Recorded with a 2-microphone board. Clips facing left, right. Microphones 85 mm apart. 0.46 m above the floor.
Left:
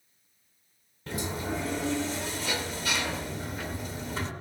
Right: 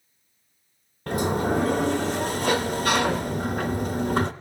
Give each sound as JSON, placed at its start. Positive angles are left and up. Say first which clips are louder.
{"t": 1.1, "sound": "a sliding door", "louder": "right 9 dB", "side_deg": -55, "distance_m": 0.7}